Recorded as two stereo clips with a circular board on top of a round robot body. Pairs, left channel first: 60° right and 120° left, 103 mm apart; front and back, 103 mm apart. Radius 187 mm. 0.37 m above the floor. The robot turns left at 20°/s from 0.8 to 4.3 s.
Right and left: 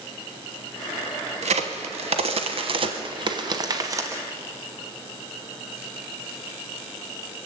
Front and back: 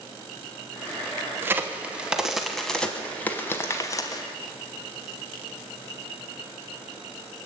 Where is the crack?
110° left, 0.9 m; by 4.2 s 55° left, 0.9 m.